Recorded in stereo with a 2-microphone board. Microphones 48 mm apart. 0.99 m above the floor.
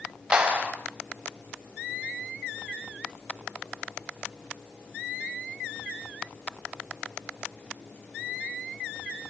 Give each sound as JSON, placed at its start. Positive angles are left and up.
{"t": 0.3, "sound": "a clap", "side_deg": -20, "distance_m": 4.0}